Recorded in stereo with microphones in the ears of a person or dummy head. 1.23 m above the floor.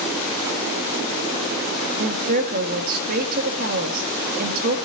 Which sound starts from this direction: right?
A woman speaking, at 2.0 s.